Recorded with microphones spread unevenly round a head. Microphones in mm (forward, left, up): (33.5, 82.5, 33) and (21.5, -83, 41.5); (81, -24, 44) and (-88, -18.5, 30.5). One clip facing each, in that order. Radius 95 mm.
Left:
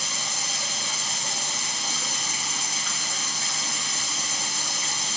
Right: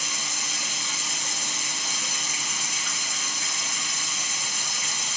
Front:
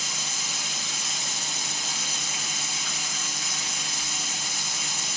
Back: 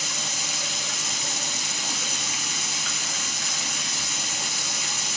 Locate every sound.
0.0 s running water: 145° left, 1.5 m